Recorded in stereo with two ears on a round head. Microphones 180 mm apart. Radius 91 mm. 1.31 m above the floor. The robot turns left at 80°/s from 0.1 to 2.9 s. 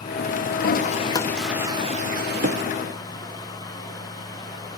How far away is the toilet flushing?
About 0.6 m.